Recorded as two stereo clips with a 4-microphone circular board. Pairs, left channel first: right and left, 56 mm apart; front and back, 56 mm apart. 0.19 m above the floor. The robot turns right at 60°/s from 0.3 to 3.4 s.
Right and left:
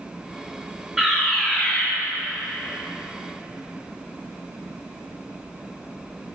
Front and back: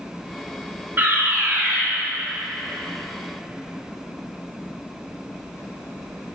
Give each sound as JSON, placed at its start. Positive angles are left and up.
{"t": 1.0, "sound": "a fire alarm", "azimuth_deg": -175, "distance_m": 3.0}